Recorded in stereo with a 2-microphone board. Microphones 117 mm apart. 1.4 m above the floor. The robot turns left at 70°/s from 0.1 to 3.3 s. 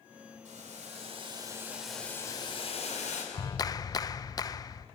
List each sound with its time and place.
0.5 s boiling: 80° right, 5 m; by 3.2 s 85° left, 5 m
3.3 s a clap: 30° left (ahead or behind), 0.6 m